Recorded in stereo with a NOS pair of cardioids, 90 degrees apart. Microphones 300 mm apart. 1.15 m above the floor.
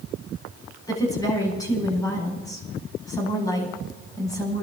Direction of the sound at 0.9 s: 10° left.